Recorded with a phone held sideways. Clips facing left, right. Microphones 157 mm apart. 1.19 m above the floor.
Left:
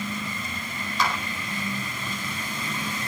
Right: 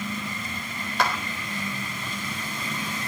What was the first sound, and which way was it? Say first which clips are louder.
A clap: right 1 dB; 60° right (ahead or behind).